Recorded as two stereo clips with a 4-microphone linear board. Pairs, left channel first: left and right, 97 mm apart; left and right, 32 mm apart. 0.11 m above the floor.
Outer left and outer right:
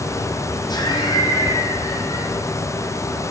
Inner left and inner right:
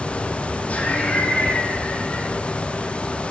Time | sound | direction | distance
0.7 | laughter | 40° left (ahead or behind) | 5.5 m